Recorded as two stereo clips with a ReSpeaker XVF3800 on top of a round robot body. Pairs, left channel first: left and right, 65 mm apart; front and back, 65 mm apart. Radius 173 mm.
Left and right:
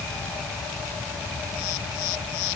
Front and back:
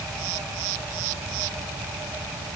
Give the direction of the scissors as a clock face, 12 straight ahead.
No scissors in this recording.